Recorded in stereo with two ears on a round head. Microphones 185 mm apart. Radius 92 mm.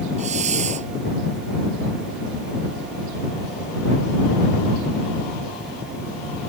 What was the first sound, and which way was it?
A hiss, 35° right (ahead or behind).